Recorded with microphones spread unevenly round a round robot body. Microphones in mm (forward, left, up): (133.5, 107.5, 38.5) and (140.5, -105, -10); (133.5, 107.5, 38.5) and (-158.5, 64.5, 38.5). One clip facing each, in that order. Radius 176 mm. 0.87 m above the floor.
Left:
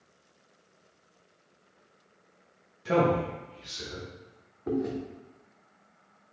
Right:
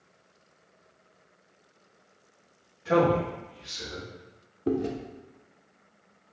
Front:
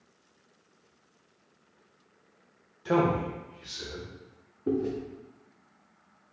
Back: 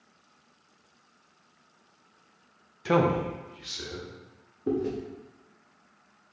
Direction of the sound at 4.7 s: 80° right.